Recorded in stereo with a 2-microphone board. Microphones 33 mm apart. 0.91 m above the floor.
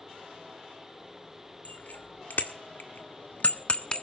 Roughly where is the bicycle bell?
Left.